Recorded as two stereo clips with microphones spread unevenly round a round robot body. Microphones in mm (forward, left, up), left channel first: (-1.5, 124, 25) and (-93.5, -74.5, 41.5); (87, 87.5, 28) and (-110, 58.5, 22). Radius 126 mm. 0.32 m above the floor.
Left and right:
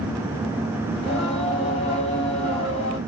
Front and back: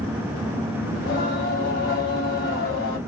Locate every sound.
0.9 s singing: 10° left, 1.4 m